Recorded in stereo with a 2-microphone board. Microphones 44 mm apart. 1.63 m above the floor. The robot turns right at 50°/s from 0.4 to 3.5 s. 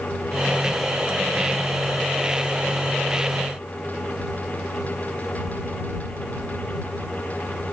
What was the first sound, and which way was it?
Only background noise.